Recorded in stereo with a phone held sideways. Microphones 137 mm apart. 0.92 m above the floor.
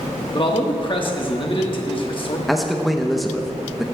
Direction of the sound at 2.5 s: Centre (ahead or behind).